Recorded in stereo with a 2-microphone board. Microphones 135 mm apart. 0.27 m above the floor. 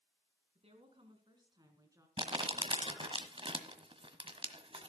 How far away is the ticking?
I don't hear ticking.